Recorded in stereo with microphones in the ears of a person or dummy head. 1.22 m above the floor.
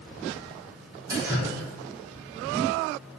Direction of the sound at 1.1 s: 20° right (ahead or behind).